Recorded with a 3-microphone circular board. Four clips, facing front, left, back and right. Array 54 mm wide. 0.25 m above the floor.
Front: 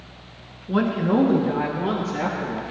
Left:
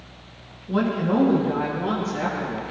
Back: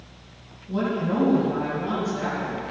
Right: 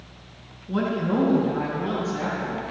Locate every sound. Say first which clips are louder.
0.7 s a woman speaking: left 2 dB, front 4 dB; 15° left, 3 m